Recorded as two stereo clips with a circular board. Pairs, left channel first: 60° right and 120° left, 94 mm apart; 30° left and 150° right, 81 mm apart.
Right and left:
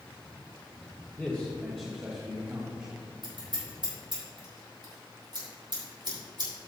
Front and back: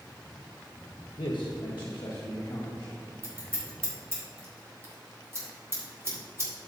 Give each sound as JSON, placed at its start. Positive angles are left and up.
{"t": 1.2, "sound": "a man speaking", "azimuth_deg": 20, "distance_m": 0.8}
{"t": 3.2, "sound": "scissors", "azimuth_deg": 155, "distance_m": 3.0}